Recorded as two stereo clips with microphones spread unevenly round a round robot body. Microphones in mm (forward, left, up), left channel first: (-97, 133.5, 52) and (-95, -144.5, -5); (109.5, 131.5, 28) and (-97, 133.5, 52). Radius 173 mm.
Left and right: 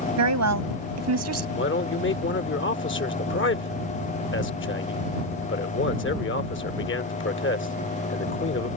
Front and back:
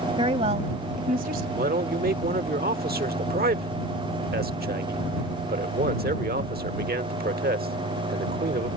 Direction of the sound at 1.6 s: 140° left.